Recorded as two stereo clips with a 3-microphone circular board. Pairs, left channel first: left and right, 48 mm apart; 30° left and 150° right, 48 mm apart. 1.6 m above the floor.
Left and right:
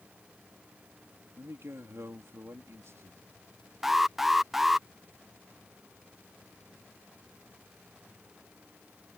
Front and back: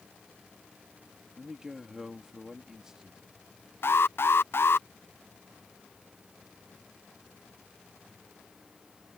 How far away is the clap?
I don't hear a clap.